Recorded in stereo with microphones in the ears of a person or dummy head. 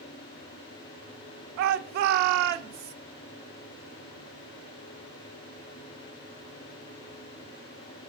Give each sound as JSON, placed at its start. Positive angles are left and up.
{"t": 1.6, "sound": "a shout", "side_deg": -60, "distance_m": 0.7}